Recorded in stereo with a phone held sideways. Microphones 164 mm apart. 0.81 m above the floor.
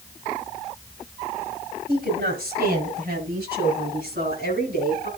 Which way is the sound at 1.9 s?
80° right.